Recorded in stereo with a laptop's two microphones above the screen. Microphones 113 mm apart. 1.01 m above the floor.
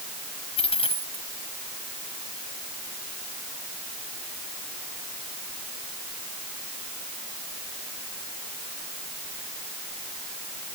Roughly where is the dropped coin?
Left.